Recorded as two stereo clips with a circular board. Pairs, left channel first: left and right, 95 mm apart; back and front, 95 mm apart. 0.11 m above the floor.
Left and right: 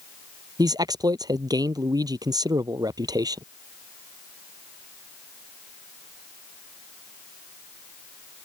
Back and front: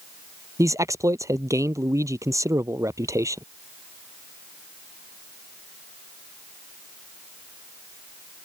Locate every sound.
0.6 s a man speaking: 50° right